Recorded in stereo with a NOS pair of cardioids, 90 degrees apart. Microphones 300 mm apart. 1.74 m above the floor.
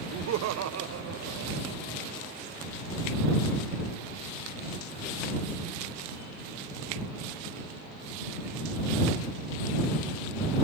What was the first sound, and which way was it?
Laughter, 65° right.